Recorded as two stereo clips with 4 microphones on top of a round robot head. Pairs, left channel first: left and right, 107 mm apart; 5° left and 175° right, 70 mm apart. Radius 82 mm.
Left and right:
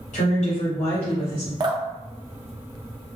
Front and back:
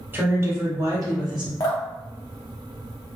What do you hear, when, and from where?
0.1 s a woman speaking: 125° left, 0.8 m; by 1.5 s 155° right, 0.6 m
1.6 s dripping: 40° right, 0.6 m